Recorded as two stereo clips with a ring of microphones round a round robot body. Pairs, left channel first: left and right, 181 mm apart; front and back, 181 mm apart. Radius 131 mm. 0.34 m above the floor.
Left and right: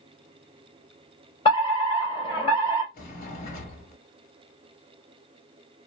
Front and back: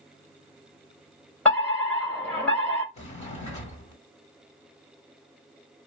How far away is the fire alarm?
About 2.5 m.